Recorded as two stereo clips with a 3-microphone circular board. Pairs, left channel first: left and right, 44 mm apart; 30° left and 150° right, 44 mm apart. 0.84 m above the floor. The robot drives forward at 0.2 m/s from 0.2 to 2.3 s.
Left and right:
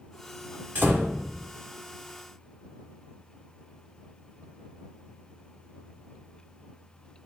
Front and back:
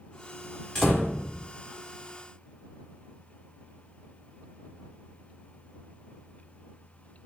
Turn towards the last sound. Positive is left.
turn(degrees=-65)